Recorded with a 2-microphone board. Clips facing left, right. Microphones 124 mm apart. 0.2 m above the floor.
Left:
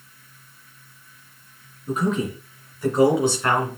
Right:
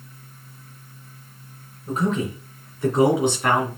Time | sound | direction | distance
1.9 | a man speaking | 30° right (ahead or behind) | 3.5 m